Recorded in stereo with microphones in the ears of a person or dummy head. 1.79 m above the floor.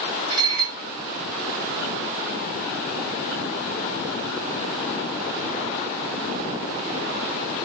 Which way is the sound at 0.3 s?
55° right (ahead or behind).